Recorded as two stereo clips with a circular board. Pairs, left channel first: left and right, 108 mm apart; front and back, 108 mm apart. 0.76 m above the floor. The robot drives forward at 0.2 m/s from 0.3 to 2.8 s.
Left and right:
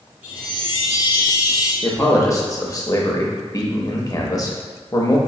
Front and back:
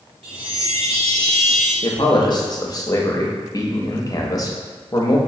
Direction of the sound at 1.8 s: 35° left.